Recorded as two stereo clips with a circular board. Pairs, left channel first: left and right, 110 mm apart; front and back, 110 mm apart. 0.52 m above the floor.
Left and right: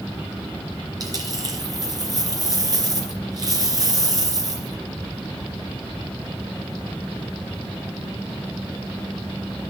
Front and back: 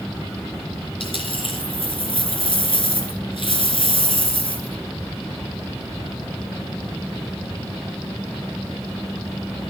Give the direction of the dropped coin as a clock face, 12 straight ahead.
1 o'clock.